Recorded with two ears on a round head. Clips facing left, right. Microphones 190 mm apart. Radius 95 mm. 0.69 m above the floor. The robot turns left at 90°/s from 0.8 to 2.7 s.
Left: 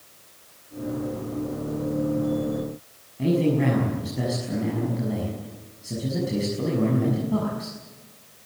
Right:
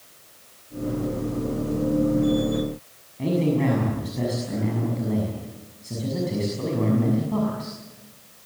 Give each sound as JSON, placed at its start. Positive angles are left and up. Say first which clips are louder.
{"t": 3.2, "sound": "a man speaking", "louder": "left 1 dB", "side_deg": 10, "distance_m": 6.5}